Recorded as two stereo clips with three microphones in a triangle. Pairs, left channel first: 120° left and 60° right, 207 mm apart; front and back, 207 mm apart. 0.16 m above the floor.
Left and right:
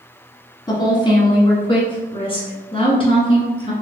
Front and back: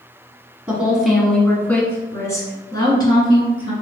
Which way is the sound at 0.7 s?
110° left.